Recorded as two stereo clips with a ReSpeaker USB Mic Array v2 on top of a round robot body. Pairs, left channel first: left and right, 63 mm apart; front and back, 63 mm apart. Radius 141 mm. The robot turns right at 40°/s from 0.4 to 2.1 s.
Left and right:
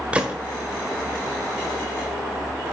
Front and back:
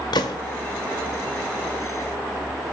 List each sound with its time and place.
0.1 s a gunshot: 15° right, 1.1 m